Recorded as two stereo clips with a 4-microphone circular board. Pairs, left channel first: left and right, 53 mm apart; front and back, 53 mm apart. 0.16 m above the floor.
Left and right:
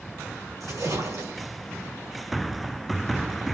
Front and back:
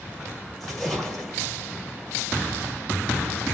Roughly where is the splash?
Right.